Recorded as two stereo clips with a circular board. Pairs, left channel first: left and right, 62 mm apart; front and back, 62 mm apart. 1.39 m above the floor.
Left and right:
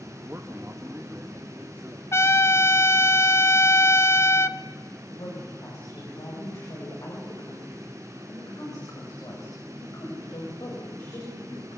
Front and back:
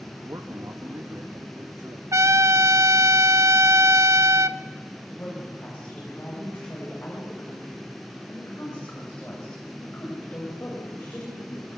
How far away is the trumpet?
About 0.8 m.